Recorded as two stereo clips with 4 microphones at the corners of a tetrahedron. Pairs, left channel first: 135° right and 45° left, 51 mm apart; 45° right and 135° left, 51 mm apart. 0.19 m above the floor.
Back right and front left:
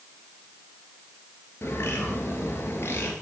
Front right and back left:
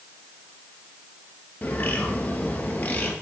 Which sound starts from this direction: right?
A bird, at 1.6 s.